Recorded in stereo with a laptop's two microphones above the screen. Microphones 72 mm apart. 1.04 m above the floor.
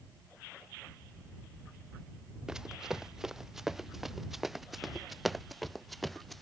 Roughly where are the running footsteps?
Centre.